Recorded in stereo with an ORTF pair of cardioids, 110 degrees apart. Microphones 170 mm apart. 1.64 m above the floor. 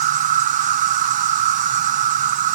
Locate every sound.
0.0 s an insect: 50° right